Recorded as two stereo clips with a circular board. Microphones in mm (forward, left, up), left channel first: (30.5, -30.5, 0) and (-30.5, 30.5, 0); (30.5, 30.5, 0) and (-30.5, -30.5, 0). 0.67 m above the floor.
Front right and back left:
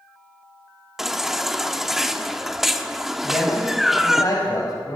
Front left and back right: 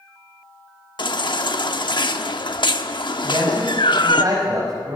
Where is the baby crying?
50° left, 1.0 m.